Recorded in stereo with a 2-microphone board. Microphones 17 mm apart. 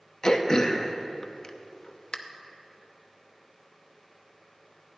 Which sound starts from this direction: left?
Throat clearing, at 0.2 s.